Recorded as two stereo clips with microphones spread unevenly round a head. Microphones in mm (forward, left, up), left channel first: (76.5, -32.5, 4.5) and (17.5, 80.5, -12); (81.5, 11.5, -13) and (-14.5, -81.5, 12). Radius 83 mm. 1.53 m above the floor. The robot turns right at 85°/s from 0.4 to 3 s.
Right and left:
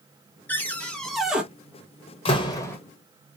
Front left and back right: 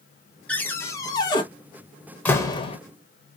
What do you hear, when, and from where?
0.5 s a cupboard door: 50° right, 0.7 m; by 1.4 s 30° left, 0.7 m
2.2 s a door slam: 40° right, 0.9 m; by 2.8 s 5° left, 0.9 m